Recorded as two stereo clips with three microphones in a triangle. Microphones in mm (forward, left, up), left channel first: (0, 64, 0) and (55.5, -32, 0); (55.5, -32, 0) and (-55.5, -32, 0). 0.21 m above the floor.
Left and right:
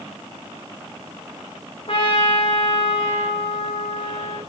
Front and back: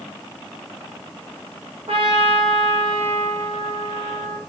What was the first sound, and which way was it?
A trumpet, 150° left.